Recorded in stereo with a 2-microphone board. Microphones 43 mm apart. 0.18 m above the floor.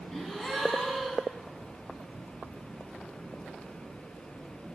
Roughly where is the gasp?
Centre.